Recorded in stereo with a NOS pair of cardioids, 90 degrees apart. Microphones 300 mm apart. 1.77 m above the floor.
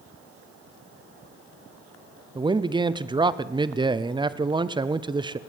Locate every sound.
2.4 s a man speaking: 15° right, 0.7 m